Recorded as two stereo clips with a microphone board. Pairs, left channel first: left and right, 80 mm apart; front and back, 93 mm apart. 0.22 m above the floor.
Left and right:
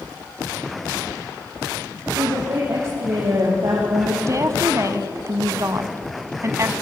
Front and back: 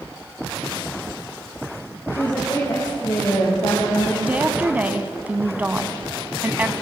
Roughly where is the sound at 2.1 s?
Ahead right.